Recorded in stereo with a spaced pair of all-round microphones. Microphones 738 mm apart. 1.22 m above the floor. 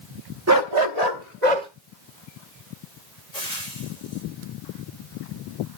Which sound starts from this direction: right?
A dog barking, at 0.5 s.